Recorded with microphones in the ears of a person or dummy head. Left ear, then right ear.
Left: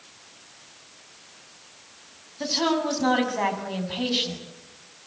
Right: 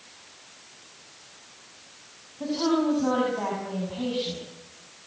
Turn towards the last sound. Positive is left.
turn(degrees=65)  # may be behind; listen again after turning